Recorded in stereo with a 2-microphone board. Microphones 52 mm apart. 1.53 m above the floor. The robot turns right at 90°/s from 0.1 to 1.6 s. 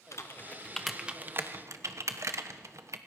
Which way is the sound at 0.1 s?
70° left (ahead or behind).